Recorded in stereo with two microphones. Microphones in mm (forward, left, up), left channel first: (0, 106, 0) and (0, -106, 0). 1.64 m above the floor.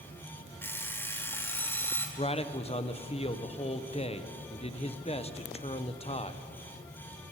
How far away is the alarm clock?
About 2.5 m.